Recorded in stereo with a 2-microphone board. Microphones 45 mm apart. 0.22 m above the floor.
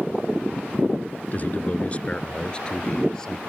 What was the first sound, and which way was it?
A man speaking, 40° left (ahead or behind).